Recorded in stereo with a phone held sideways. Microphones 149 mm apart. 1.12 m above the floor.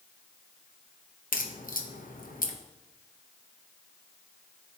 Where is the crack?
70° left (ahead or behind), 0.9 m.